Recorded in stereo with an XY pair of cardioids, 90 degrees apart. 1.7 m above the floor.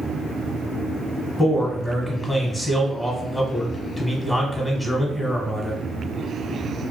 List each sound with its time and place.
1.4 s a man speaking: 20° left, 1.3 m